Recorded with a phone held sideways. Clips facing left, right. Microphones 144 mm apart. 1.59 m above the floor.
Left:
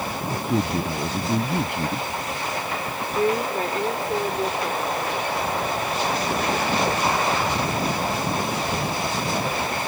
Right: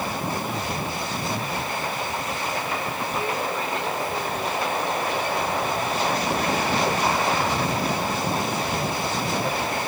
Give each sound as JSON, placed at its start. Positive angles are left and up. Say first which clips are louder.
{"t": 0.3, "sound": "a man speaking", "louder": "left 4 dB", "side_deg": 75}
{"t": 3.1, "sound": "a woman speaking", "louder": "left 7 dB", "side_deg": 45}